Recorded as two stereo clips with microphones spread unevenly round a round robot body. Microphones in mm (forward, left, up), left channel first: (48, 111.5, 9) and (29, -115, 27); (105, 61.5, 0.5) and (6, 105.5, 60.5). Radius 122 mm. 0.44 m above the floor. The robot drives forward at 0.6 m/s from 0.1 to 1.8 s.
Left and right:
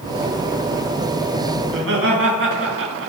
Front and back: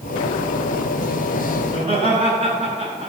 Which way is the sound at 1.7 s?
135° right.